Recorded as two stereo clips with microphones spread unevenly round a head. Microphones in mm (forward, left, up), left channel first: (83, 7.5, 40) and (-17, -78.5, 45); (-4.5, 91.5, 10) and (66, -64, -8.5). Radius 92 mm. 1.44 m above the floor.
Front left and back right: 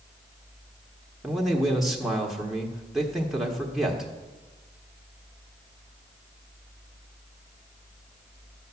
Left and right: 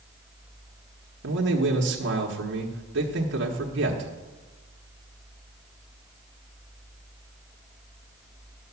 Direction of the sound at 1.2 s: 50° right.